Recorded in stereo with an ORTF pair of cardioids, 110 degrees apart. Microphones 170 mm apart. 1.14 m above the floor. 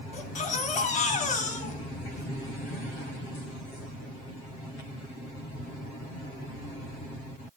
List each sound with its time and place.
0.1 s a baby crying: 50° left, 2.5 m